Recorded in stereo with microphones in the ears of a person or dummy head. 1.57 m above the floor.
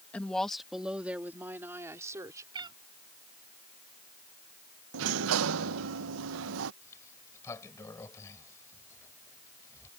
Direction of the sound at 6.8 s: 15° left (ahead or behind).